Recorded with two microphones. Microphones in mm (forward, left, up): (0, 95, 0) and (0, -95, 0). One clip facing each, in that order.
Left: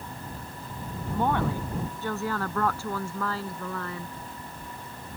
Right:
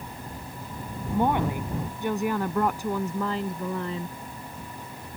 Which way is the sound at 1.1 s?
15° right (ahead or behind).